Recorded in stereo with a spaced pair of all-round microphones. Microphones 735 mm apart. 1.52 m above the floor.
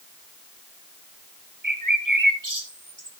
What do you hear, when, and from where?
1.6 s a bird: 25° right (ahead or behind), 2.0 m